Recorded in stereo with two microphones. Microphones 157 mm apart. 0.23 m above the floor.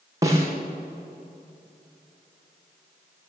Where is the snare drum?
20° right (ahead or behind), 6 m.